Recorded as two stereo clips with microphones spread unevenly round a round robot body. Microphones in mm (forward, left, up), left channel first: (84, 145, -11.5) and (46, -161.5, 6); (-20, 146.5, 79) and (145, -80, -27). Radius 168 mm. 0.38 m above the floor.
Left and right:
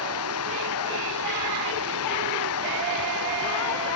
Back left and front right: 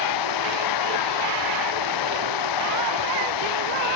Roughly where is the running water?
Behind left.